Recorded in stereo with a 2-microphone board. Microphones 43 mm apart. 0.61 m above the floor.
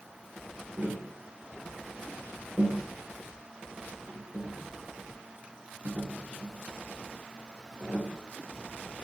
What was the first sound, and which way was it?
Tapping, 70° right (ahead or behind).